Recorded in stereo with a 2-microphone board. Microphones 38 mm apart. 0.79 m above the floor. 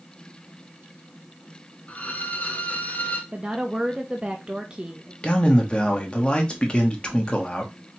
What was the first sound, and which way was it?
A violin, 40° left (ahead or behind).